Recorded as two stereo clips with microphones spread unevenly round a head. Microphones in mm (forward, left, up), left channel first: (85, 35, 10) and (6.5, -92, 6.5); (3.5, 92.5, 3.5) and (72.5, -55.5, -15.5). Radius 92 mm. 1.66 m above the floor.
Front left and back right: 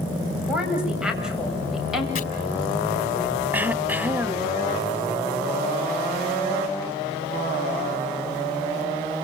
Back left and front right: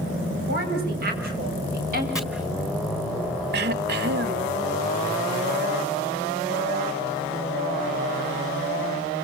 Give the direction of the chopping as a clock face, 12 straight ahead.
11 o'clock.